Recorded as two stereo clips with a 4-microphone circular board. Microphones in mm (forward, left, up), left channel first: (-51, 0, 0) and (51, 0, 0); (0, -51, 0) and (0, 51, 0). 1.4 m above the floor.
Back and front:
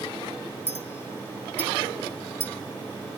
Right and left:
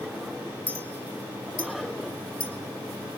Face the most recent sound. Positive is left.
turn(degrees=-65)